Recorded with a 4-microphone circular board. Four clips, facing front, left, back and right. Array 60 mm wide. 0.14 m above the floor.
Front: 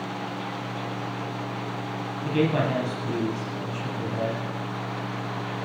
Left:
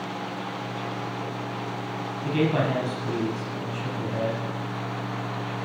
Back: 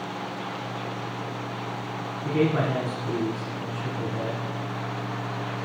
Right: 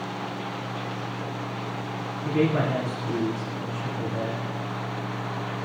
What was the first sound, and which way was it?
A man speaking, 40° left.